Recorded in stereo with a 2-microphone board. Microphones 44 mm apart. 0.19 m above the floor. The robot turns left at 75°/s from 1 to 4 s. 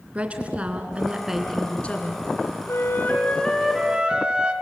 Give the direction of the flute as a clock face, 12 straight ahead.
10 o'clock.